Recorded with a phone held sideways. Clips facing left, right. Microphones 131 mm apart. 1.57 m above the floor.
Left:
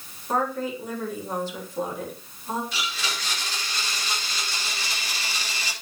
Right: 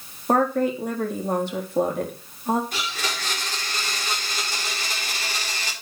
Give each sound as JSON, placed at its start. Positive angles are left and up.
{"t": 0.3, "sound": "a woman speaking", "side_deg": -65, "distance_m": 3.5}
{"t": 2.7, "sound": "a blender", "side_deg": -50, "distance_m": 4.5}